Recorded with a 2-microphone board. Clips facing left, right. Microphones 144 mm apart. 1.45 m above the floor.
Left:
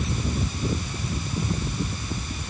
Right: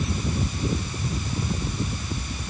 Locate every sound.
Only background noise.